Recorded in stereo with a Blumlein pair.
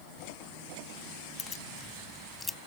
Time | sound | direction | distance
1.4 | keys jangling | 20° left | ?